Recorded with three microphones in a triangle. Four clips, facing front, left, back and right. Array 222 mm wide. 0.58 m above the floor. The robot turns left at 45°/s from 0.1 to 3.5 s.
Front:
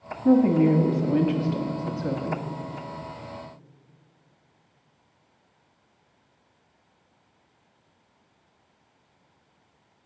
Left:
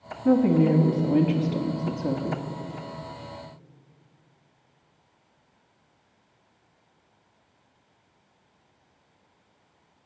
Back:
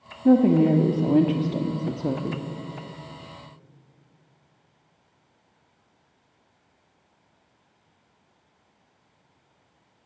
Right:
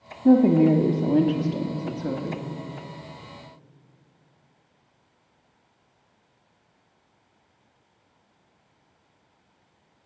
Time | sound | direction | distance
0.2 | a woman speaking | 110° right | 1.0 m